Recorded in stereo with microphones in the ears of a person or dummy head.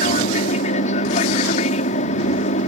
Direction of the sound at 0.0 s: 45° left (ahead or behind).